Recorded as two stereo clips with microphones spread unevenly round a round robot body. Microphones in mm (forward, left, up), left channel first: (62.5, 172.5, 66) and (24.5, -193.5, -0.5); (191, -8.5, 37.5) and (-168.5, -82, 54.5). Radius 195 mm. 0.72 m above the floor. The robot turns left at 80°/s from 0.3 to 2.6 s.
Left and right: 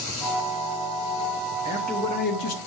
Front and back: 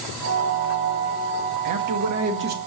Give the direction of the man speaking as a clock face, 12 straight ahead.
5 o'clock.